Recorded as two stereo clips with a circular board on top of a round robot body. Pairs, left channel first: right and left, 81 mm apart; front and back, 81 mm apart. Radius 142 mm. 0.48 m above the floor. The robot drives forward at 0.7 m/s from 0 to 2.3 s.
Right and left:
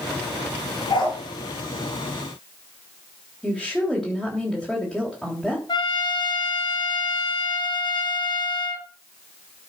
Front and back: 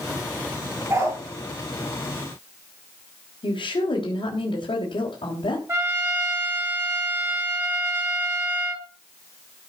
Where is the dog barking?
120° right, 5 m; by 1.2 s 125° right, 5 m.